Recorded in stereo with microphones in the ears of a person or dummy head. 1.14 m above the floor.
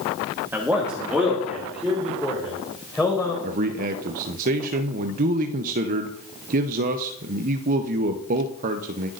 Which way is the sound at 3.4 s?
45° right (ahead or behind).